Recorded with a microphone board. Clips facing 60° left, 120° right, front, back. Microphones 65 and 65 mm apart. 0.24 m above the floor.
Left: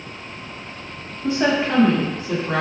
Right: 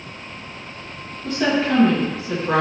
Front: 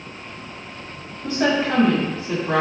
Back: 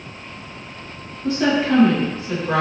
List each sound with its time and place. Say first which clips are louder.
1.2 s a woman speaking: left 1 dB, back 2 dB; 20° left, 1.2 m; by 2.6 s 60° right, 1.5 m